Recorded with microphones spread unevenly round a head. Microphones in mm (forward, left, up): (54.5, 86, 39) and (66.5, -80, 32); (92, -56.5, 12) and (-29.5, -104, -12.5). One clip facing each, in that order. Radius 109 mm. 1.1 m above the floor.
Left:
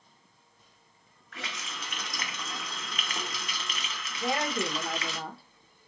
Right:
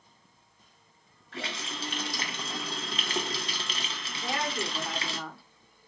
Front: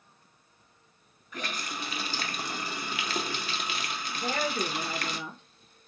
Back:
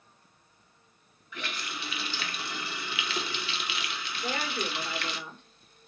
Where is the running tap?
25° right, 0.6 m.